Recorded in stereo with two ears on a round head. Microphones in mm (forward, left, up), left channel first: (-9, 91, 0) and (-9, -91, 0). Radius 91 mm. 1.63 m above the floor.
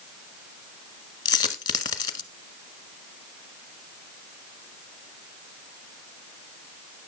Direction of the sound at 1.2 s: 20° left (ahead or behind).